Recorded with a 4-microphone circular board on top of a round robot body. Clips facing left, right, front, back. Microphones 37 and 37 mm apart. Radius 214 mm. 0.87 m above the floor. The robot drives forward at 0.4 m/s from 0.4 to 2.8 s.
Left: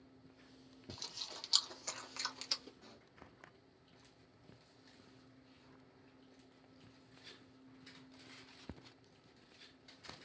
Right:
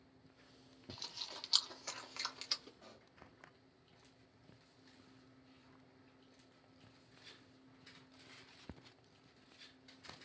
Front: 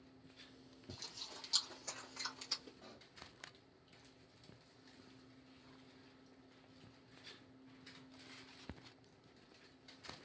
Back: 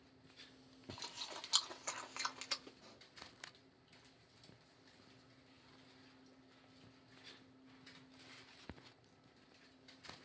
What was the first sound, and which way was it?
Chewing, 165° right.